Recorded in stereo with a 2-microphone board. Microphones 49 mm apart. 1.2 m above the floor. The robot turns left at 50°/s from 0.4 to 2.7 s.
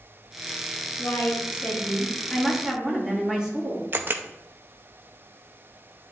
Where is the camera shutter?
45° right (ahead or behind), 0.5 m.